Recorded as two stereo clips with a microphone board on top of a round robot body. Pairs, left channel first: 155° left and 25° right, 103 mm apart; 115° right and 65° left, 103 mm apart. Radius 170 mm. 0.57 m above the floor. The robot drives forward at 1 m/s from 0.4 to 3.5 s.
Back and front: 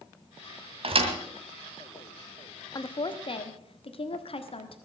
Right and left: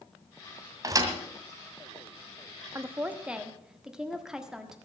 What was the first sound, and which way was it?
A thud, 10° left.